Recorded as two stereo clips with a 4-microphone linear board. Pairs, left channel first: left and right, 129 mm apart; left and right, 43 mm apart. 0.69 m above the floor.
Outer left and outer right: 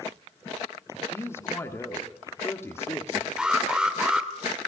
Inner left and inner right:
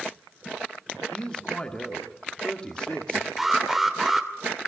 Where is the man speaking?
20° left (ahead or behind), 1.9 m.